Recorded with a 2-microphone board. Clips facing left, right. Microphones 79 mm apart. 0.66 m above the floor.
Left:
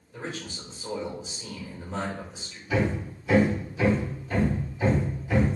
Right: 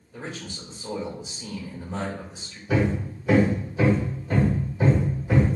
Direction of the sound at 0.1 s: 5° right (ahead or behind).